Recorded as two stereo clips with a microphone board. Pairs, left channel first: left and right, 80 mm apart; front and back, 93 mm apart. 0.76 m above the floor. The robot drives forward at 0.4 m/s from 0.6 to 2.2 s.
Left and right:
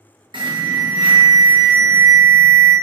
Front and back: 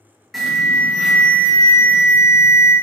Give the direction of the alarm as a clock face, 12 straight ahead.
3 o'clock.